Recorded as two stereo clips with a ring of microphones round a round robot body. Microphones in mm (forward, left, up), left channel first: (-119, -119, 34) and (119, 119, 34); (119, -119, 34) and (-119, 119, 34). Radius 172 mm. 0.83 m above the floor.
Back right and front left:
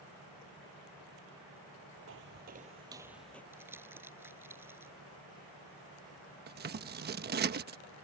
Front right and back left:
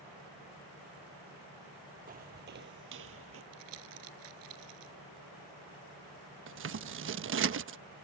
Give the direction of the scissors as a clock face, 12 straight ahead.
9 o'clock.